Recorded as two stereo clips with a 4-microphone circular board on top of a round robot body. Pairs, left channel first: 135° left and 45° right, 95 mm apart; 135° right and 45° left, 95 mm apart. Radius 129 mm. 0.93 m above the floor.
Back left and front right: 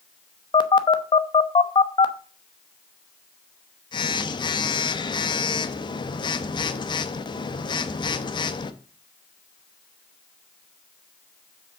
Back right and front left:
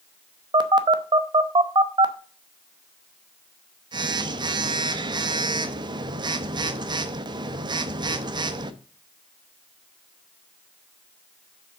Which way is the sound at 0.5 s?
90° left.